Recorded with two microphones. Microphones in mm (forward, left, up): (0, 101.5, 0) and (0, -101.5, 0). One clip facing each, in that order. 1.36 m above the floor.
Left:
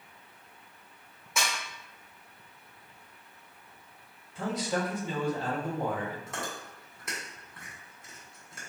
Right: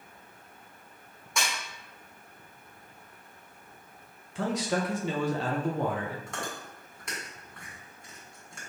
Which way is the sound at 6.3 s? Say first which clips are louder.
Right 1 dB; 5° left (ahead or behind).